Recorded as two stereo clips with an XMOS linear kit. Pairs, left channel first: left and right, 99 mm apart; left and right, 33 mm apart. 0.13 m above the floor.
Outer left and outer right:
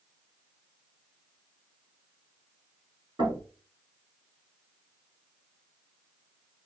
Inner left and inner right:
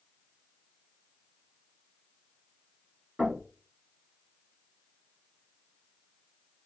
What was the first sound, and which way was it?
Knocking, 55° right (ahead or behind).